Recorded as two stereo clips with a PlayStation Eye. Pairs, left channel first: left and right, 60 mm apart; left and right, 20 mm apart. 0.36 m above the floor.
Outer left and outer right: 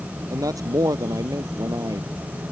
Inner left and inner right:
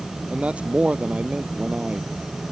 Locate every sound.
0.3 s a man speaking: 80° right; by 2.1 s 85° right